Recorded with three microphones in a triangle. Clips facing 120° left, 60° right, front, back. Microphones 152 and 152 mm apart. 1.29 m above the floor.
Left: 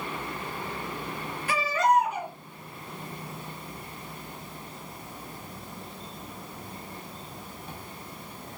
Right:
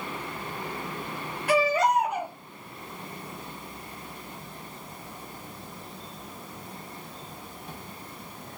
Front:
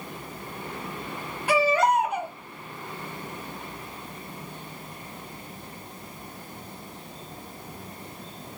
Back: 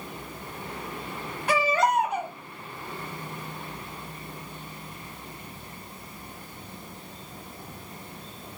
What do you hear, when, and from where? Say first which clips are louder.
1.5 s a baby crying: right 2 dB, front 2 dB; 80° right, 1.0 m